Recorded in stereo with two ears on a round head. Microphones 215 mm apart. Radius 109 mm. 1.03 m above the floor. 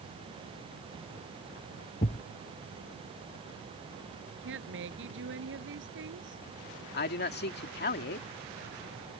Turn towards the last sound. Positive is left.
turn(degrees=45)  # may be behind; listen again after turning